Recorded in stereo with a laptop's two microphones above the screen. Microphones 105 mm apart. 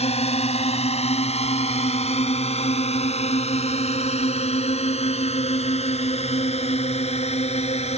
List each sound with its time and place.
0.0 s a drone: 80° left; by 8.0 s 85° left